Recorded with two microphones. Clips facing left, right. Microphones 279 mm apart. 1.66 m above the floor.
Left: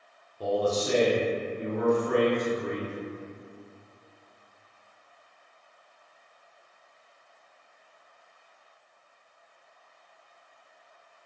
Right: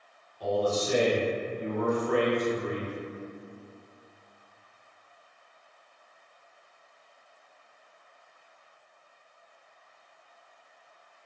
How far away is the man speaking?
About 0.7 m.